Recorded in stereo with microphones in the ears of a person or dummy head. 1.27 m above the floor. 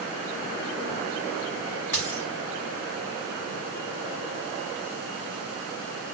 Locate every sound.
1.9 s a dropped coin: 5° left (ahead or behind), 1.6 m